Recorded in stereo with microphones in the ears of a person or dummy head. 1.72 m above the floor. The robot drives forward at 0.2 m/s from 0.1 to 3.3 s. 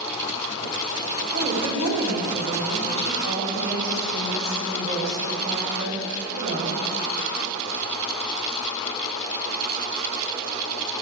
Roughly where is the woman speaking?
Right.